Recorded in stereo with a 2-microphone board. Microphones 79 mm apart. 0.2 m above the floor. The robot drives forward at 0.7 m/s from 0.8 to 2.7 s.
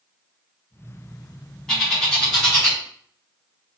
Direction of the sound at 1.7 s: 5° left (ahead or behind).